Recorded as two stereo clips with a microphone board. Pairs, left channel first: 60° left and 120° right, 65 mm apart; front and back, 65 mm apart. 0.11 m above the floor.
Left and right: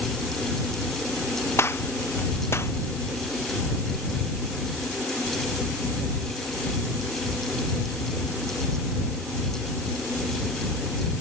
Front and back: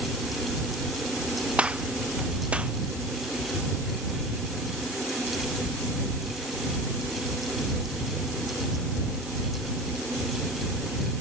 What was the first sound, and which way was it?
A gunshot, 110° left.